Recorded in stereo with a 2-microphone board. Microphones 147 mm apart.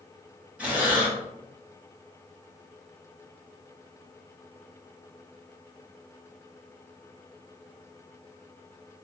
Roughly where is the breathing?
Centre.